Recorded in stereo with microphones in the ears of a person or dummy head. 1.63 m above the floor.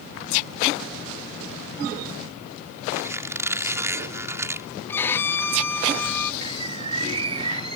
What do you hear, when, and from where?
2.9 s a squeak: 15° right (ahead or behind)
4.9 s a violin: 15° left (ahead or behind)
6.4 s a bird: 35° right (ahead or behind)